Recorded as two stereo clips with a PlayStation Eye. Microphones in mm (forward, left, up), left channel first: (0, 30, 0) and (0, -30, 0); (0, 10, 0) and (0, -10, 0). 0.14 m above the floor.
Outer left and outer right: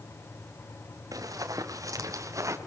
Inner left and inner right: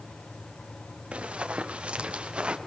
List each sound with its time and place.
1.1 s running footsteps: 80° right, 4 m; by 2.6 s 60° right (ahead or behind), 2.5 m